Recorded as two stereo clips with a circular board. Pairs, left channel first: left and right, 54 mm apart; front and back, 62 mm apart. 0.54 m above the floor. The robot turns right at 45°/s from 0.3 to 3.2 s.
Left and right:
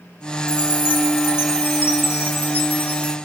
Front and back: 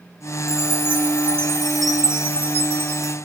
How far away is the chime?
About 1.8 m.